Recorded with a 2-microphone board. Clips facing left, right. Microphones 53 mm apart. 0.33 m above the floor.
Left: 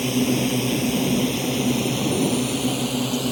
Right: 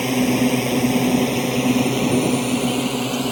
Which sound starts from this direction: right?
A drone, at 0.0 s.